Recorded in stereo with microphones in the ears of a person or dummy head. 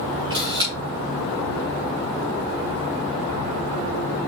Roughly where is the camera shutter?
Right.